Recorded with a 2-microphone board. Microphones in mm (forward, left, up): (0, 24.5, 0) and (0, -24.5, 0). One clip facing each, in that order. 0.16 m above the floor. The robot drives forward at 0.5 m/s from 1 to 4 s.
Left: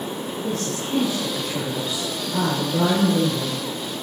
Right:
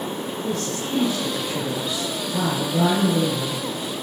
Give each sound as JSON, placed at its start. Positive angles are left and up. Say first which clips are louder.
{"t": 0.4, "sound": "a woman speaking", "louder": "even", "side_deg": 5, "distance_m": 6.0}